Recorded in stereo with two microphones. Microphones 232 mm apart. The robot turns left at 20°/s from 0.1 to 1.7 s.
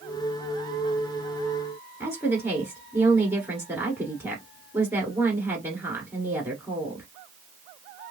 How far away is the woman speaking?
About 1.3 m.